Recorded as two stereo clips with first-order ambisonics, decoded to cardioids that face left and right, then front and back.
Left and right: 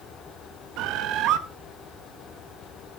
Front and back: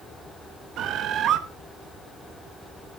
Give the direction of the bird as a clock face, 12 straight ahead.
4 o'clock.